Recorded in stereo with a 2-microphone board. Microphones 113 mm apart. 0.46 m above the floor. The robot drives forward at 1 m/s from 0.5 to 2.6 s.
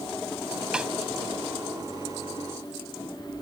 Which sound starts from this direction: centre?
A snare drum, at 0.7 s.